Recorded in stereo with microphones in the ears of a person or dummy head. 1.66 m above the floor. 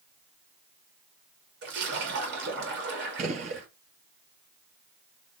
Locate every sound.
1.6 s a splash: 60° right (ahead or behind), 2 m
3.2 s a gunshot: 40° right (ahead or behind), 1.1 m